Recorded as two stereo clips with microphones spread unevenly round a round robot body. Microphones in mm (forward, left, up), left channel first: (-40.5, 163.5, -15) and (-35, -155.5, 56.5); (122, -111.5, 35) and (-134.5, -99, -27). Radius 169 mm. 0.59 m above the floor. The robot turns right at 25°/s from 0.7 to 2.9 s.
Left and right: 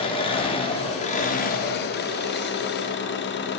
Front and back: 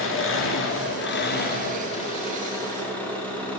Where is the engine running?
40° left, 0.9 m; by 3.6 s 95° left, 0.9 m.